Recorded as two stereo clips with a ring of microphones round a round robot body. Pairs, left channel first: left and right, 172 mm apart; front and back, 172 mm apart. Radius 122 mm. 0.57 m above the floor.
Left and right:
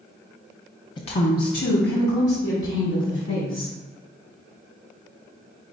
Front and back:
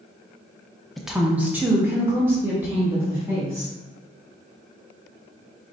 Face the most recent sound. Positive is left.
turn(degrees=105)